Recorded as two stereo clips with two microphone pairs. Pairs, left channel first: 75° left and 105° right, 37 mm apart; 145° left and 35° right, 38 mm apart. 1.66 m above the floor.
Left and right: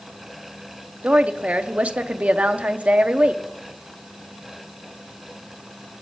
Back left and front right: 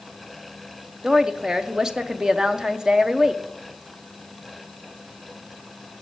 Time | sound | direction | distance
1.0 | a woman speaking | 100° right | 0.6 m